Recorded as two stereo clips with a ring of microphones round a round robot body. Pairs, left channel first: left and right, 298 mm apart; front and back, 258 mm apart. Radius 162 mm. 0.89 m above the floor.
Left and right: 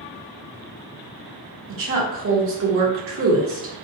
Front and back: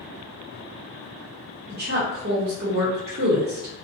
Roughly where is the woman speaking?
Behind right.